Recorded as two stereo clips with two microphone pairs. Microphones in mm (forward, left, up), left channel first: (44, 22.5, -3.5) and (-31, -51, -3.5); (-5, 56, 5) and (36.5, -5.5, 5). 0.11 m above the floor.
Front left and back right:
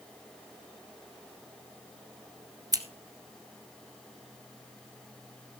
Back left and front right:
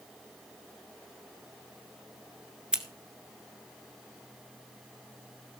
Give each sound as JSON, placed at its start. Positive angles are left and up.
{"t": 2.7, "sound": "scissors", "azimuth_deg": -130, "distance_m": 1.3}